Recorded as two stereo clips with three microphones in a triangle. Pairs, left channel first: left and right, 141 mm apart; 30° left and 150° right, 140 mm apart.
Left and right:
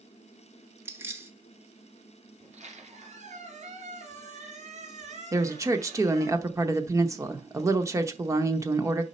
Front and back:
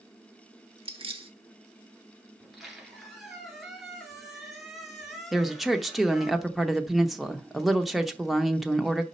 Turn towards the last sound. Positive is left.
turn(degrees=-60)